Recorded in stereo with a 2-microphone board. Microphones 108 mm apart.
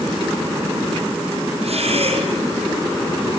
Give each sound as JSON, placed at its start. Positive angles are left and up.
{"t": 1.6, "sound": "breathing", "side_deg": -70, "distance_m": 5.0}